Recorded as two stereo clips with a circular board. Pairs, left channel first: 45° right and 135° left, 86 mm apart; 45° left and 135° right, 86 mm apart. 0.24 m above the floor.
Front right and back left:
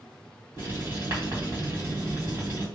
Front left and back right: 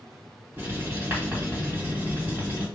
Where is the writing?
170° left, 1.9 m.